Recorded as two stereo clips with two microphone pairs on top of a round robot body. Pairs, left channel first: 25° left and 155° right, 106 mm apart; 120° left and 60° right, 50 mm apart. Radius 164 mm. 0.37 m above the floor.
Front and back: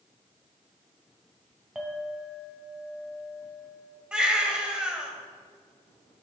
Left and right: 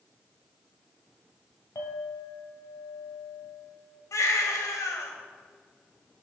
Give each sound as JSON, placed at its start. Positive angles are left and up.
{"t": 1.8, "sound": "a clink", "azimuth_deg": 120, "distance_m": 1.9}
{"t": 4.1, "sound": "a baby crying", "azimuth_deg": 125, "distance_m": 1.7}